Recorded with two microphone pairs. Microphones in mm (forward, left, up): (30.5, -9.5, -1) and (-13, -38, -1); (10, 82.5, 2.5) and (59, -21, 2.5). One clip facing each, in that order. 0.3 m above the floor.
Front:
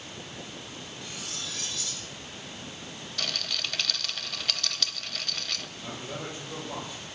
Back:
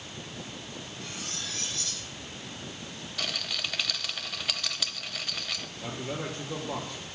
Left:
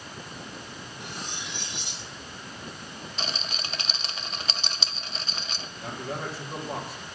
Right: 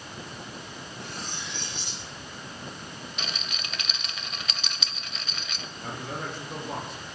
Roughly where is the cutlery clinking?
Behind.